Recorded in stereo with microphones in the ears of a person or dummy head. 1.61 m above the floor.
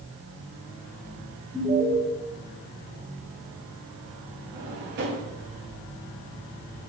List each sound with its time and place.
1.5 s an alarm: 15° right (ahead or behind), 2.5 m
4.5 s a drawer: 50° right (ahead or behind), 2.5 m